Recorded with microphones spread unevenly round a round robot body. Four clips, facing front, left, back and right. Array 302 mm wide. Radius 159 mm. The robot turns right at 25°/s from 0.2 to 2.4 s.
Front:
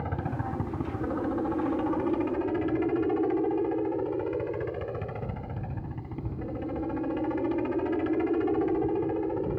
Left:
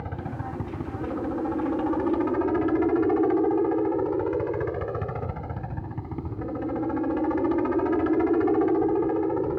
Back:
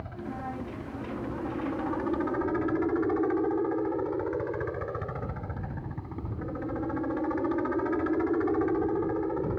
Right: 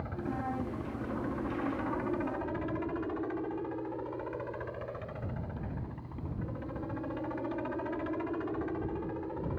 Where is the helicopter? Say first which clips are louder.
Left 2 dB, front 4 dB; 35° left; by 9.6 s 90° left.